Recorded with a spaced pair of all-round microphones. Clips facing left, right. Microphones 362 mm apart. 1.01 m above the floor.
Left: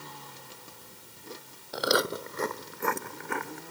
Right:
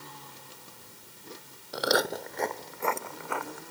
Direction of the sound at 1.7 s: Centre (ahead or behind).